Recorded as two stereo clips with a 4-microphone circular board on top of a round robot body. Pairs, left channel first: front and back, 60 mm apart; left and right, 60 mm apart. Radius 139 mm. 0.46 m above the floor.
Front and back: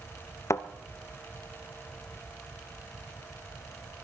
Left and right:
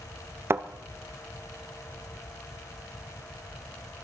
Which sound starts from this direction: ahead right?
A thud, at 0.5 s.